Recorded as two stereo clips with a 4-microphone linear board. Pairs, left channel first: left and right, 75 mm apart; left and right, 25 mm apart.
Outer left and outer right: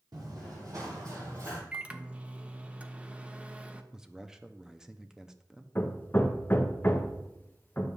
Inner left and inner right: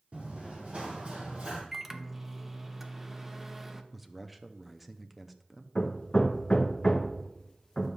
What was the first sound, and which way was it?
Running footsteps, 60° right (ahead or behind).